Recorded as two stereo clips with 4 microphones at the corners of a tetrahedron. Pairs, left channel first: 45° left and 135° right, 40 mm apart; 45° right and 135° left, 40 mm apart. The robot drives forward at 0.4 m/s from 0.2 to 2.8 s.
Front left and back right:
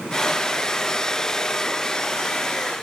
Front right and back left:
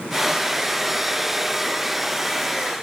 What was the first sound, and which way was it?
Only background noise.